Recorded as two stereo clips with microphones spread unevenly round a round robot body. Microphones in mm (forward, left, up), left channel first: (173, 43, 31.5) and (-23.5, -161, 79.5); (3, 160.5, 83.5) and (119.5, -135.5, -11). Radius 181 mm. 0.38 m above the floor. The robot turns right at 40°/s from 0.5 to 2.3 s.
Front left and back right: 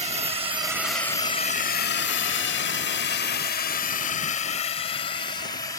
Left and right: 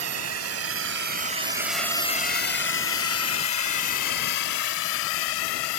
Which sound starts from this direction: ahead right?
A drone, at 0.0 s.